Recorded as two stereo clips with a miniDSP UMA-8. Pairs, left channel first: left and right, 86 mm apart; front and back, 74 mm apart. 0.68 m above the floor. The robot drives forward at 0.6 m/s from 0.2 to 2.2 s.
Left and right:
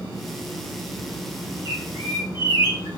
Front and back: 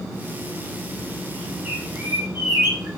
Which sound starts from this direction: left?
A bird, at 1.6 s.